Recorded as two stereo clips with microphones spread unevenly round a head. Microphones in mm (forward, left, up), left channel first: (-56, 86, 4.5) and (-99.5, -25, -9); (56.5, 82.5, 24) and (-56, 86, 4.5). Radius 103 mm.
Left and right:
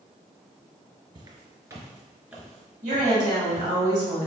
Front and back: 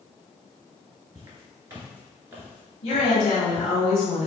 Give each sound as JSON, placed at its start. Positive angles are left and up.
{"t": 1.1, "sound": "footsteps", "azimuth_deg": -120, "distance_m": 1.7}
{"t": 2.8, "sound": "a woman speaking", "azimuth_deg": -65, "distance_m": 1.6}